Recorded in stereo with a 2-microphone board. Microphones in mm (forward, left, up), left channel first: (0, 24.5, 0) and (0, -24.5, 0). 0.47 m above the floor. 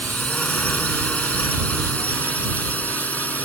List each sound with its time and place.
0.0 s a drone: 25° left (ahead or behind); by 3.5 s 35° left (ahead or behind)